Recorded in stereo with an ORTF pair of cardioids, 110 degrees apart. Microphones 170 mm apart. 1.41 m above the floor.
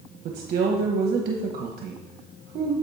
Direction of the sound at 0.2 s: 65° right.